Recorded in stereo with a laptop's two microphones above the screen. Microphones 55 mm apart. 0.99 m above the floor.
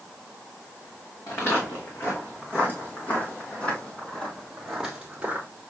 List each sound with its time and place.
1.3 s footsteps: 45° left (ahead or behind), 3 m; by 5.5 s 30° right (ahead or behind), 1.1 m